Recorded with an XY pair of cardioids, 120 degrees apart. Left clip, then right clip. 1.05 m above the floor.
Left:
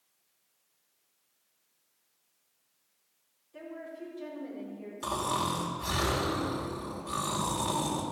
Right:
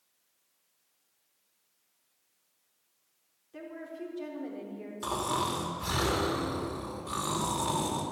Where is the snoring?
10° right, 2 m.